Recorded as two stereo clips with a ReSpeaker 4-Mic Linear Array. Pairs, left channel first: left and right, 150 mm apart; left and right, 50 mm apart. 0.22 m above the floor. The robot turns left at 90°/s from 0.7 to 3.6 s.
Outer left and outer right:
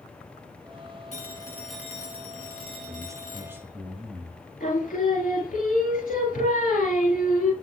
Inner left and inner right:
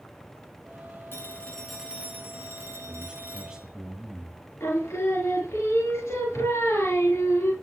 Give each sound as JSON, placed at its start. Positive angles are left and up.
{"t": 1.1, "sound": "a phone ringing", "azimuth_deg": 55, "distance_m": 2.5}
{"t": 2.9, "sound": "a man speaking", "side_deg": -20, "distance_m": 1.1}
{"t": 4.6, "sound": "singing", "side_deg": 70, "distance_m": 2.5}